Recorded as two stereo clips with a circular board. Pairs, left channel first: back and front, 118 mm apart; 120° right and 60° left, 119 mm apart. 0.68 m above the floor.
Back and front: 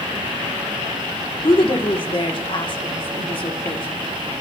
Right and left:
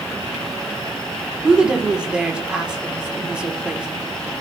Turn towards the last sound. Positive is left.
turn(degrees=140)